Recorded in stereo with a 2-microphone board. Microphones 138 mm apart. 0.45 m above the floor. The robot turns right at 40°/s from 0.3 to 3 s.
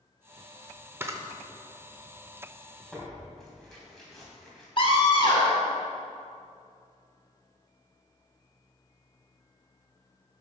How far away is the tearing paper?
About 3 m.